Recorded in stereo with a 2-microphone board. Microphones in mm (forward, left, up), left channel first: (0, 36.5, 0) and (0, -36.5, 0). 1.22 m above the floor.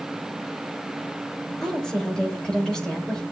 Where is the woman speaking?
10° left (ahead or behind), 6.5 m.